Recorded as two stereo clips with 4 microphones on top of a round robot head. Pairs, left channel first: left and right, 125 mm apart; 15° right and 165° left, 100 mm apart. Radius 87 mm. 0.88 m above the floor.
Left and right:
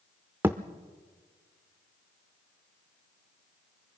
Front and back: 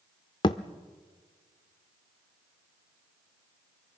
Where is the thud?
20° right, 0.5 m.